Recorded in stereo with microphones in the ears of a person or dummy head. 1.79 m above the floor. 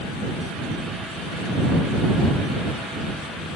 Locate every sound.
Only background noise.